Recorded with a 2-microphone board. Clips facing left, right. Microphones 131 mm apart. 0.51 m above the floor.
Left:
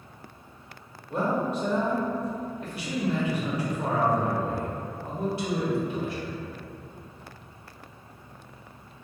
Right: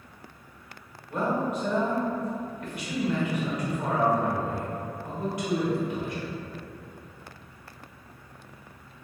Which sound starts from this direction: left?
A man speaking, at 1.1 s.